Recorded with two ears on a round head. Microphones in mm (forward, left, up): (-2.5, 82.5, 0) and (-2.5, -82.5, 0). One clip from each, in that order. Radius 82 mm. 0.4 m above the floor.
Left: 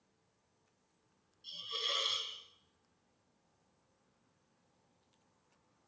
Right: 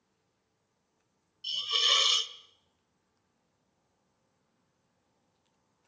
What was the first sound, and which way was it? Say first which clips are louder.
A hiss: right 12 dB; 60° right (ahead or behind).